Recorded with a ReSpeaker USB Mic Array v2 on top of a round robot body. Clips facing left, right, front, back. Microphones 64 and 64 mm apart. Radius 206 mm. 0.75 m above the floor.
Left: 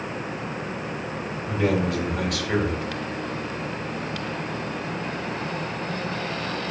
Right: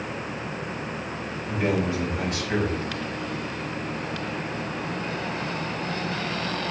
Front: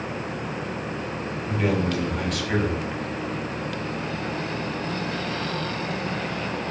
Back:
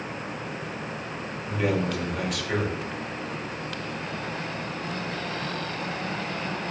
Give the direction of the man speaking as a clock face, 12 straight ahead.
9 o'clock.